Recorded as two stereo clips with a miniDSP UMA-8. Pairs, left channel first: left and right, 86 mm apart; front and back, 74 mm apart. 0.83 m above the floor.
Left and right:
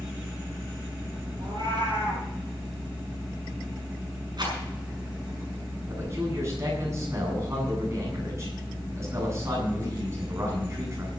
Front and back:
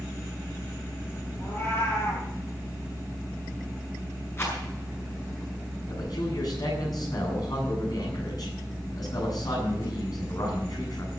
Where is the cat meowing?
55° right, 7.5 m.